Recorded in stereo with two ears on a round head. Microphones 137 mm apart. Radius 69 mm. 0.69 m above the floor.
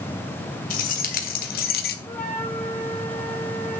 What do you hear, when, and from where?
0.7 s keys jangling: 60° left (ahead or behind), 2.5 m; by 2.0 s 70° left (ahead or behind), 1.4 m
2.1 s a flute: 10° left (ahead or behind), 4 m